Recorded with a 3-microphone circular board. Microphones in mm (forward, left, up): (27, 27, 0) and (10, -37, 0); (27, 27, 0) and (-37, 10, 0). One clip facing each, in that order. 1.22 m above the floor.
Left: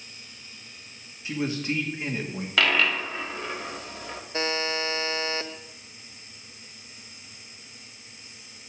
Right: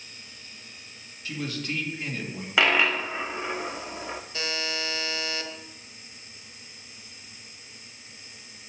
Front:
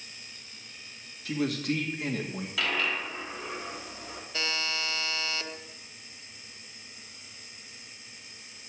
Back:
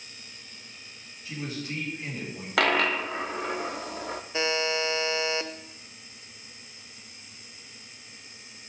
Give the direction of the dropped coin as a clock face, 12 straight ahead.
6 o'clock.